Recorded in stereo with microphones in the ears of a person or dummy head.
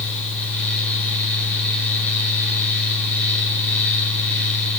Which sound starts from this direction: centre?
A fan, at 0.0 s.